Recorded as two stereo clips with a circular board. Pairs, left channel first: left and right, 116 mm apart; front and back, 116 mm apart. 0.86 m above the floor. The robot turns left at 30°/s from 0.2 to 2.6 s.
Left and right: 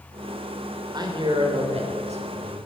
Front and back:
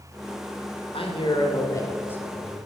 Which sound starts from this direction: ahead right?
A man speaking, at 0.9 s.